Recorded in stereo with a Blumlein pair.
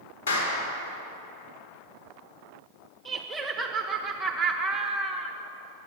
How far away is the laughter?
About 0.8 m.